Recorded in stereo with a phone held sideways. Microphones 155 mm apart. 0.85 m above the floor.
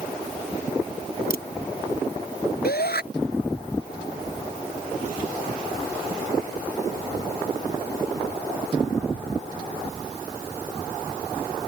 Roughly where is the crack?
Left.